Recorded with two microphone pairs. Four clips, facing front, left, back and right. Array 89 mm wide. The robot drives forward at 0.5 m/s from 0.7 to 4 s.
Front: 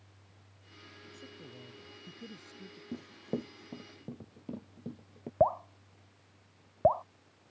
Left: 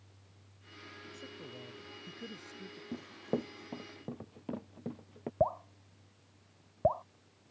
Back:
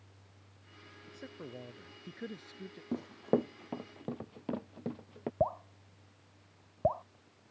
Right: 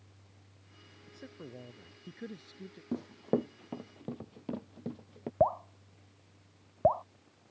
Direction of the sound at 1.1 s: 175° right.